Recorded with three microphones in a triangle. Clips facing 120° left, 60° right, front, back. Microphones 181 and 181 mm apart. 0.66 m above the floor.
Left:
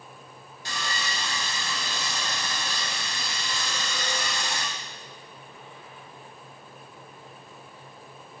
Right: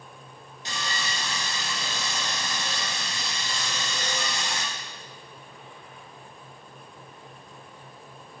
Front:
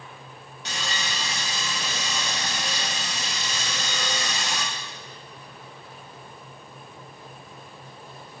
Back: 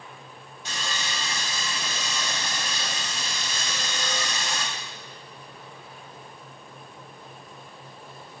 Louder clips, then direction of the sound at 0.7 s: Even, front 1 dB; 5° left.